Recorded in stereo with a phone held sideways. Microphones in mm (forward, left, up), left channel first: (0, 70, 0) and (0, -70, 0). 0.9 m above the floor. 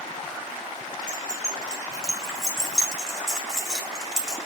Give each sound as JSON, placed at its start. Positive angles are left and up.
{"t": 1.1, "sound": "keys jangling", "side_deg": 5, "distance_m": 4.5}